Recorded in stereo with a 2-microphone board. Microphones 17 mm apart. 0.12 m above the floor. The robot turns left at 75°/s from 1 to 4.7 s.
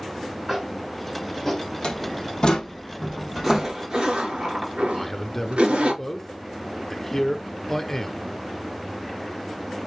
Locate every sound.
0.5 s tapping: 10° right (ahead or behind), 3 m; by 1.7 s 40° left (ahead or behind), 3 m
1.8 s a door slam: 70° left (ahead or behind), 3.5 m; by 3.8 s 45° right (ahead or behind), 3.5 m
3.4 s a zipper: 10° right (ahead or behind), 6.5 m; by 5.9 s 75° right (ahead or behind), 6.5 m
4.9 s a man speaking: 20° left (ahead or behind), 1.3 m